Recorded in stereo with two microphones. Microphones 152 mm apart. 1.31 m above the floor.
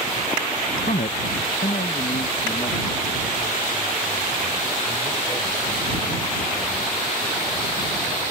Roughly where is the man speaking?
Left.